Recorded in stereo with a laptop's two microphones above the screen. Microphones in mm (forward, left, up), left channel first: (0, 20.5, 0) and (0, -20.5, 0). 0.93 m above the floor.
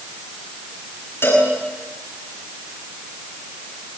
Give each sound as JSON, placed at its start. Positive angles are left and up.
{"t": 1.2, "sound": "a cowbell", "side_deg": 75, "distance_m": 8.5}